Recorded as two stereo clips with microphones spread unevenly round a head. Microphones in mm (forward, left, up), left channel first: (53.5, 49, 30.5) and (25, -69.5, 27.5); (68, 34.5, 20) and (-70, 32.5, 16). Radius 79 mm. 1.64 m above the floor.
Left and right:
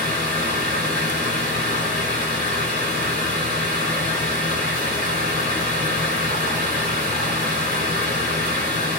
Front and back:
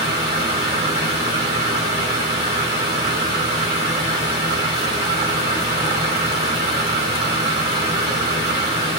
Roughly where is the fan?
Behind right.